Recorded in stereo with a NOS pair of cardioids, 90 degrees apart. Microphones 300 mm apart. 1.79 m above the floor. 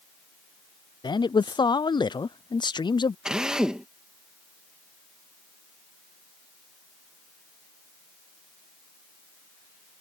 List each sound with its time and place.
1.0 s a man speaking: 15° left
3.2 s a drill: 5° right